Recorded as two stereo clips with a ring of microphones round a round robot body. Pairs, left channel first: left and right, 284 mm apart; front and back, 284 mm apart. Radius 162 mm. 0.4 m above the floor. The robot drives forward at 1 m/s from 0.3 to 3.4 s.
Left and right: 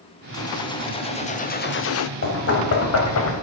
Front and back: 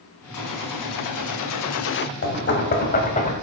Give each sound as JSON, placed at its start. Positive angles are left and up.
{"t": 0.3, "sound": "a gunshot", "azimuth_deg": 10, "distance_m": 2.0}
{"t": 2.2, "sound": "knocking", "azimuth_deg": 45, "distance_m": 3.0}